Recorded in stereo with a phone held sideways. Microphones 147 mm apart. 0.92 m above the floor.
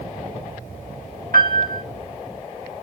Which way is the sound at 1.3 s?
85° right.